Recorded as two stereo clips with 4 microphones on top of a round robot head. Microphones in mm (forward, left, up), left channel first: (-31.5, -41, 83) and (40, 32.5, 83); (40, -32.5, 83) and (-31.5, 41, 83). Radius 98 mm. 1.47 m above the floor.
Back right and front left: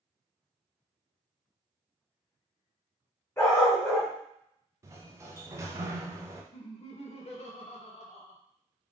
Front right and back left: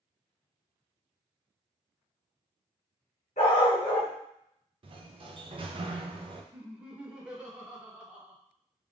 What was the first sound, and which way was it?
A dog barking, 65° right.